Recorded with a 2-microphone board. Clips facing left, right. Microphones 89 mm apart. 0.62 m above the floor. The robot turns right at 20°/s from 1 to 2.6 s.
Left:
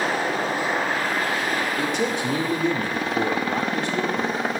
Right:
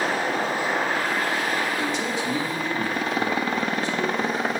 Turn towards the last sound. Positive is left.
turn(degrees=65)  # may be behind; listen again after turning